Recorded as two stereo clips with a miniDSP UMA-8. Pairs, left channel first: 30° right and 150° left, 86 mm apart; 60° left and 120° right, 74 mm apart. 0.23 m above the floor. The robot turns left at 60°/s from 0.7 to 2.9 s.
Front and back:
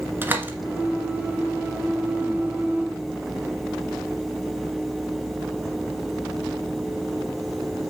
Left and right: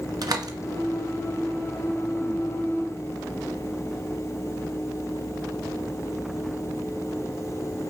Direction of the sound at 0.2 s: 145° right.